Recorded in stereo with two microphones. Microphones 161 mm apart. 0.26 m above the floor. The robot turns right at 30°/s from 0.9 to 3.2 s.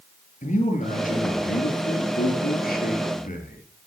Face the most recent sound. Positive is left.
turn(degrees=125)